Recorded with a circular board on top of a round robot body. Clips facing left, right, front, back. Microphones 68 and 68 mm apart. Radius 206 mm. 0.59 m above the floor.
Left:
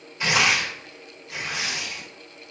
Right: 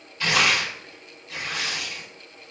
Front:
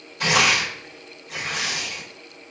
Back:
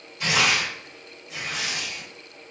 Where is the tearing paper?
25° left, 1.5 m.